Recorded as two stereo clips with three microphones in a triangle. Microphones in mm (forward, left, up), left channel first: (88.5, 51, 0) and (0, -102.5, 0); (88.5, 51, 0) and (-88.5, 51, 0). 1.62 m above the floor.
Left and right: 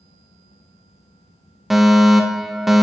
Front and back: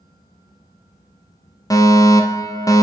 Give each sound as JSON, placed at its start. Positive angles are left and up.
{"t": 1.7, "sound": "a fire alarm", "azimuth_deg": -35, "distance_m": 0.9}